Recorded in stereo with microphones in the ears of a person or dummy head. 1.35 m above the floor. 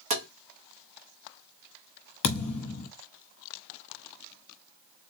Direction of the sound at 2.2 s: 40° left (ahead or behind).